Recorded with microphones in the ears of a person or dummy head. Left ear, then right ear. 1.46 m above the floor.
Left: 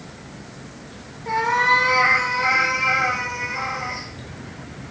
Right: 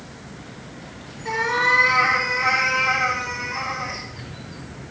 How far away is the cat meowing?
About 1.7 m.